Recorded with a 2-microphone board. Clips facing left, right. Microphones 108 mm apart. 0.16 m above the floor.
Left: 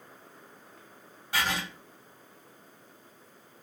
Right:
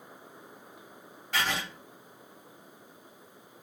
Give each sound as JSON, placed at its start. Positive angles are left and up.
{"t": 1.3, "sound": "writing", "side_deg": 10, "distance_m": 1.9}